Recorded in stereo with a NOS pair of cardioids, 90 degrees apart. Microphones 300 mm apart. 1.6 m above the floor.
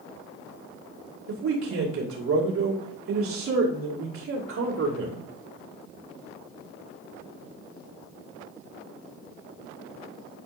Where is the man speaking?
65° right, 2.5 m.